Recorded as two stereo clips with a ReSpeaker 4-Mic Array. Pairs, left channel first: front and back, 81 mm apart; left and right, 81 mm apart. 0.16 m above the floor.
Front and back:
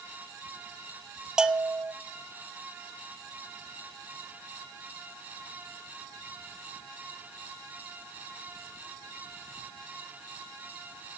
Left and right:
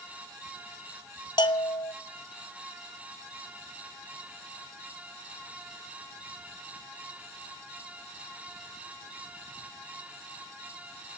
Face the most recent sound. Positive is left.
turn(degrees=100)